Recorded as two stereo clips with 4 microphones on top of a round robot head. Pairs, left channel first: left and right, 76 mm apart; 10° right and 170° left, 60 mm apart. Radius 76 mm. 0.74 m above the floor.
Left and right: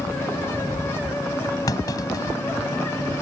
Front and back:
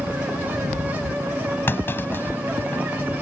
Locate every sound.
1.7 s a clunk: 45° left